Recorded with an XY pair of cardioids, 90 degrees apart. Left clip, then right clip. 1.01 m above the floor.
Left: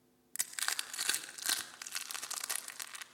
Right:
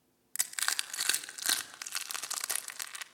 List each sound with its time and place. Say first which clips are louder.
0.3 s crushing: right 4 dB; 30° right, 2 m